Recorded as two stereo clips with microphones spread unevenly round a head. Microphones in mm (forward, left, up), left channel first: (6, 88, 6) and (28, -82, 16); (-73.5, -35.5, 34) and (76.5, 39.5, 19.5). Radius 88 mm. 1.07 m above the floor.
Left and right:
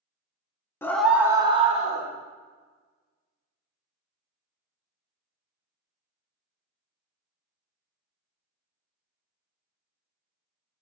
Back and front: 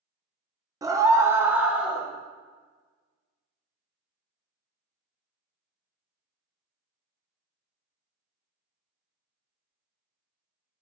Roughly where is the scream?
Ahead left.